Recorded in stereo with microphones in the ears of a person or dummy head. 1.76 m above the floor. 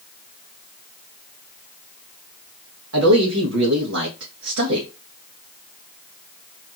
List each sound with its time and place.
2.9 s a man speaking: 90° right, 1.0 m